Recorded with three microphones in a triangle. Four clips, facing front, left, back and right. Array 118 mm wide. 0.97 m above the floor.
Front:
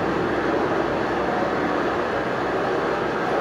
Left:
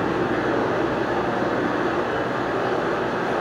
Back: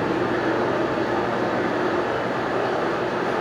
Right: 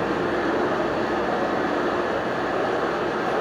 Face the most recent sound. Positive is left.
turn(degrees=175)